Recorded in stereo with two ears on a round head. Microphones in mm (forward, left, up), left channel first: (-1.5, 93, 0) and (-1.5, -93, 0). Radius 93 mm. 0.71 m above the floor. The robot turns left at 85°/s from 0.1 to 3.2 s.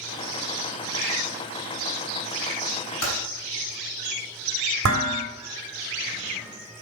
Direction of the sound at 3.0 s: 80° left.